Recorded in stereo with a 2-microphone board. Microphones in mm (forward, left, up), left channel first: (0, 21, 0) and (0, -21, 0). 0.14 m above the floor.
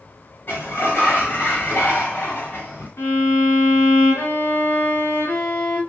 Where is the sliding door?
50° left (ahead or behind), 3.5 m.